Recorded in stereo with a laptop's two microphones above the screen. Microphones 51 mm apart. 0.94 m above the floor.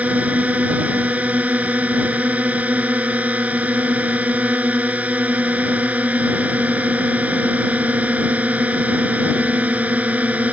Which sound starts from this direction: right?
A drone, at 0.0 s.